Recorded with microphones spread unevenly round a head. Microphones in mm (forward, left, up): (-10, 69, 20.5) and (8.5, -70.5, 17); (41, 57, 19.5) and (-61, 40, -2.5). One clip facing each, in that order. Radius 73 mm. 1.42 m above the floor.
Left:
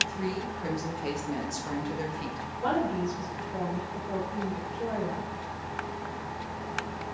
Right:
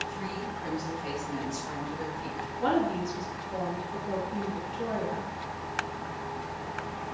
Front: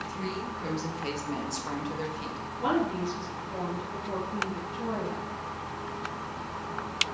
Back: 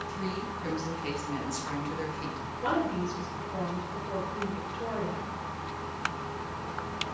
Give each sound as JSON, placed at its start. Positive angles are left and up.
{"t": 0.1, "sound": "a woman speaking", "azimuth_deg": 50, "distance_m": 2.0}
{"t": 2.6, "sound": "a woman speaking", "azimuth_deg": -35, "distance_m": 2.5}